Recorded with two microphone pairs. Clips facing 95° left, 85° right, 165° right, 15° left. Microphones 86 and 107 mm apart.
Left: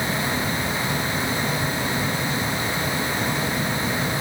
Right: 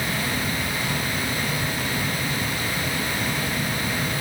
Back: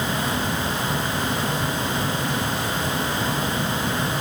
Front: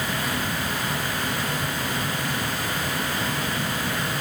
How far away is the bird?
No bird in this recording.